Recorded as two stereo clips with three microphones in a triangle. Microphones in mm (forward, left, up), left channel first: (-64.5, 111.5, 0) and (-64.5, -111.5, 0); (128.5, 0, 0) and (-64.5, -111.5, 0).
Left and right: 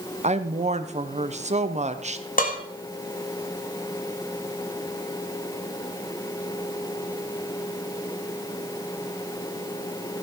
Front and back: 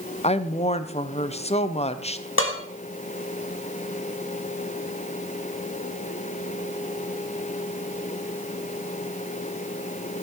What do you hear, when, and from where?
0.2 s a woman speaking: 35° right, 0.8 m
2.4 s dishes clattering: 45° left, 1.5 m